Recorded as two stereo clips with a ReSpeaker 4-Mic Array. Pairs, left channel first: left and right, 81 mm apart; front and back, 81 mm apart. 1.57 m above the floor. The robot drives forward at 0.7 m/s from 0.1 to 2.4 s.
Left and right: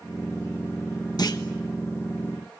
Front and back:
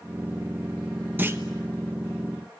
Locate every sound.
1.2 s a clunk: 115° left, 1.2 m; by 1.4 s 125° left, 1.3 m